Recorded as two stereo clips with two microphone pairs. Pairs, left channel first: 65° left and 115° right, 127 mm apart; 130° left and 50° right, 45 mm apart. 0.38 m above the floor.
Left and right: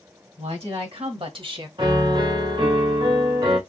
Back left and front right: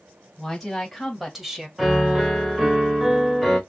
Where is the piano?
125° right, 1.7 m.